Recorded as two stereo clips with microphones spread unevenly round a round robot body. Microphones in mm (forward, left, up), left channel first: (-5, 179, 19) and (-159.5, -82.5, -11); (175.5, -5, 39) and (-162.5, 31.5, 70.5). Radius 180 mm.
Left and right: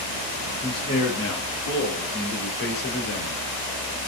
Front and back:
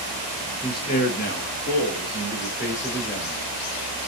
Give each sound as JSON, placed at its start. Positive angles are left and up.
{"t": 0.6, "sound": "a man speaking", "azimuth_deg": -65, "distance_m": 0.9}